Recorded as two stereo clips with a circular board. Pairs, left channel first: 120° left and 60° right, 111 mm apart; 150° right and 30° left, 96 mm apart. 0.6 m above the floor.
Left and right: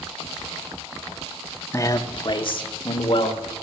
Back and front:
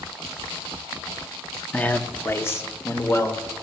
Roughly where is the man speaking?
Behind left.